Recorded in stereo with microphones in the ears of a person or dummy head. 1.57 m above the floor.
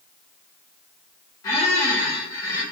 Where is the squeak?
20° left (ahead or behind), 0.6 m.